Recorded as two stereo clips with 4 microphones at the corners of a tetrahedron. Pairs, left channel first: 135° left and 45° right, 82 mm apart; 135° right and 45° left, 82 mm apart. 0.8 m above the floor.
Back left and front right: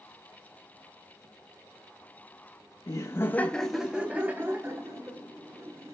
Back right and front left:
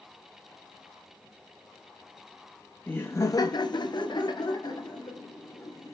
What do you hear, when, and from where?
2.9 s laughter: 160° left, 0.9 m; by 6.0 s 90° right, 2.5 m